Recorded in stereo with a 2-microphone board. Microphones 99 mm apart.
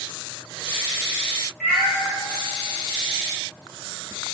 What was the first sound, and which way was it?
A cat meowing, centre (ahead or behind).